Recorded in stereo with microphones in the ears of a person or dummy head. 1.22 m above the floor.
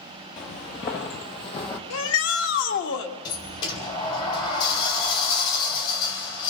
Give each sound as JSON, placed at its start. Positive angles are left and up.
{"t": 0.4, "sound": "footsteps", "side_deg": 30, "distance_m": 1.3}
{"t": 1.9, "sound": "a shout", "side_deg": 75, "distance_m": 1.9}
{"t": 3.2, "sound": "a sliding door", "side_deg": 30, "distance_m": 2.5}